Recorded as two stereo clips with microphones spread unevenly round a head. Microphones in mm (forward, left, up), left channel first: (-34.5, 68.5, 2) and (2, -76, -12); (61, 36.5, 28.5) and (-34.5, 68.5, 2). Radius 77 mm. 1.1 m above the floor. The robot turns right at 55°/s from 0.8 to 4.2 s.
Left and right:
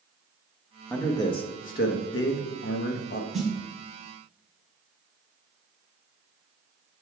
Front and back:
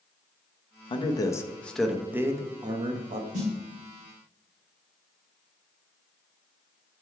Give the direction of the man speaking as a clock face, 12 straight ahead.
11 o'clock.